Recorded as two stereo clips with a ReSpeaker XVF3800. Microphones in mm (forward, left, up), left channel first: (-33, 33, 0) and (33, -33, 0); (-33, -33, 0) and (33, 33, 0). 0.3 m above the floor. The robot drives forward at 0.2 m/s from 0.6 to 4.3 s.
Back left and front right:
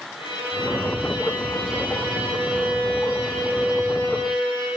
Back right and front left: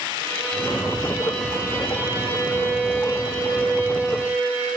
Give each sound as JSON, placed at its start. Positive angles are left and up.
{"t": 0.2, "sound": "a violin", "azimuth_deg": 160, "distance_m": 4.0}